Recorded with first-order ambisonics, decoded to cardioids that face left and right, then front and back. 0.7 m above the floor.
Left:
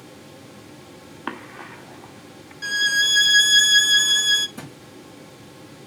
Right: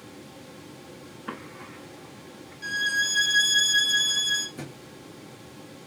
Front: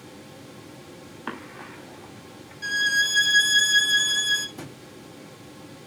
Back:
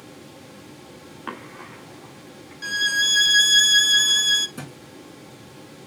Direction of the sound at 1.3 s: 90° left.